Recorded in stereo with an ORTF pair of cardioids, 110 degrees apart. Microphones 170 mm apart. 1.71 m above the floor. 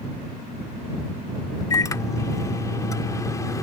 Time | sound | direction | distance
1.7 | a microwave | 20° left | ?